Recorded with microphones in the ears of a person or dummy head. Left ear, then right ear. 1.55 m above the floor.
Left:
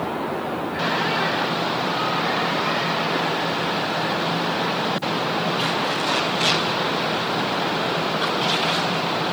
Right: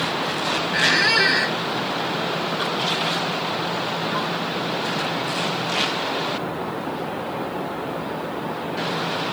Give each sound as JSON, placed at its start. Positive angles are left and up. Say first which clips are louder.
{"t": 0.7, "sound": "a squeak", "louder": "right 6 dB", "side_deg": -40}